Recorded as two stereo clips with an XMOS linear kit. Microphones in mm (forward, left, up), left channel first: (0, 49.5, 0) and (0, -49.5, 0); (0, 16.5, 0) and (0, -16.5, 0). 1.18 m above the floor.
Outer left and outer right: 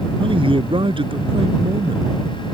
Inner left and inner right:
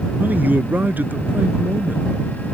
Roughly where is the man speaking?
Right.